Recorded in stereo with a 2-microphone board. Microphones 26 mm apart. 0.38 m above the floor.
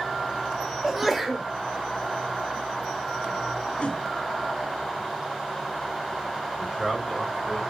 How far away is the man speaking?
About 1.9 m.